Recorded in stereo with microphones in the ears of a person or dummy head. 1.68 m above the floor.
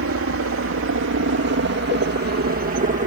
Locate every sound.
0.0 s a helicopter: 70° right (ahead or behind); by 3.1 s 40° right (ahead or behind)